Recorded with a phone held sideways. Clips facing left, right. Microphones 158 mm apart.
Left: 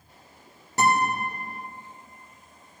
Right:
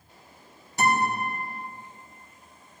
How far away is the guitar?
About 3.5 m.